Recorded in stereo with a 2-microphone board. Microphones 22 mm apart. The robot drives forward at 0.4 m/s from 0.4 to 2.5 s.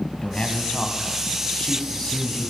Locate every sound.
0.2 s a man speaking: 50° left (ahead or behind), 1.4 m; by 2.5 s 40° left (ahead or behind), 1.6 m